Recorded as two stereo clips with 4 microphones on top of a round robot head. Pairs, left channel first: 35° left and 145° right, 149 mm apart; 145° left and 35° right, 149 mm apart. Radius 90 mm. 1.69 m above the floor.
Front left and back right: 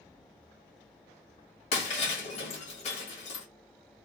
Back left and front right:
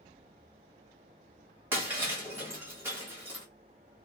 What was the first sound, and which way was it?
Breaking glass, 35° left.